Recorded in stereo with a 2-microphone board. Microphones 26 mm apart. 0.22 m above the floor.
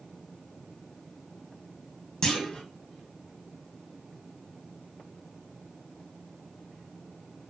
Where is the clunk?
35° left (ahead or behind), 0.6 m.